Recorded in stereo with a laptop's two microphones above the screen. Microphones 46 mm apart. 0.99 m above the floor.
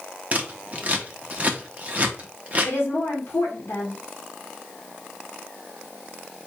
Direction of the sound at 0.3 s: 35° right (ahead or behind).